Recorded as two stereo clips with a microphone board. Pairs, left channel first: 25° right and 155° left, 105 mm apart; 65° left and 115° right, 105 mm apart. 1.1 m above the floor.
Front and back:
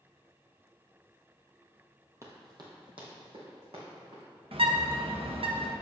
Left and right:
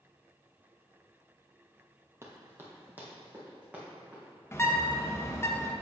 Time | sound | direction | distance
2.2 | running footsteps | 160° right | 1.4 m
4.5 | a bird | 130° left | 0.8 m